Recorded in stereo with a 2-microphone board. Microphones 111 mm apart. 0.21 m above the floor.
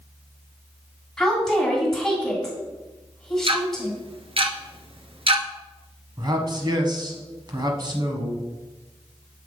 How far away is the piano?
No piano in this recording.